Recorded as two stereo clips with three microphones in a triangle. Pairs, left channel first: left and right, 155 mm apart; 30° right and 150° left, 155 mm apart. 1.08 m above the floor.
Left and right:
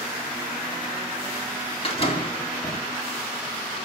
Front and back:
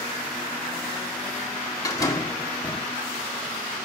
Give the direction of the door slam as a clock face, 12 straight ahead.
11 o'clock.